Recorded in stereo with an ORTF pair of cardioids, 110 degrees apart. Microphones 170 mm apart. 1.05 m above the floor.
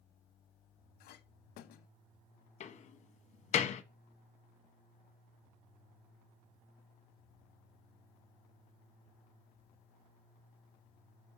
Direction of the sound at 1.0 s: 70° left.